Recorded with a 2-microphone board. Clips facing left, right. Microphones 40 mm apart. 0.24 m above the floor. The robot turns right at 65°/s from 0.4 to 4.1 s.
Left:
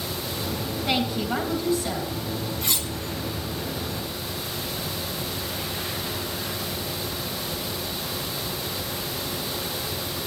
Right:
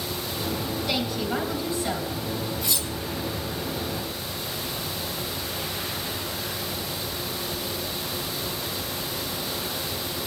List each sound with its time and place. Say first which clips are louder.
0.8 s a woman speaking: left 4 dB; 120° left, 2 m; by 2.1 s 160° right, 2 m
2.6 s cutlery clinking: left 1 dB; 50° left (ahead or behind), 1.9 m; by 2.9 s 65° left (ahead or behind), 1.9 m